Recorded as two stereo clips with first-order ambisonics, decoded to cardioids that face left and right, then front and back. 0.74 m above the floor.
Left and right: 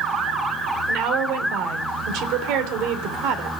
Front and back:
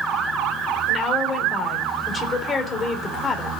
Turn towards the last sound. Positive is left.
turn(degrees=-70)